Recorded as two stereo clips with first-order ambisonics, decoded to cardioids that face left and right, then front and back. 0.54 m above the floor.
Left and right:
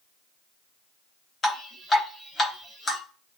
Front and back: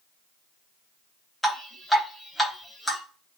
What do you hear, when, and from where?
1.4 s dripping: 85° left, 0.7 m